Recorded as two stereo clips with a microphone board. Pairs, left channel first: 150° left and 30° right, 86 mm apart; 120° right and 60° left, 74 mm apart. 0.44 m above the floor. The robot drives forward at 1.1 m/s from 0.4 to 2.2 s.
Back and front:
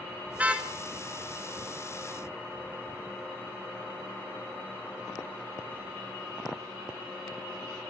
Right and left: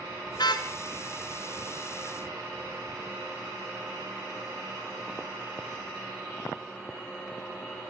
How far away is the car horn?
About 2.5 m.